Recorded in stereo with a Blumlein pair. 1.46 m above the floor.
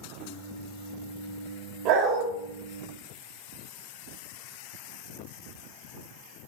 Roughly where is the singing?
Ahead.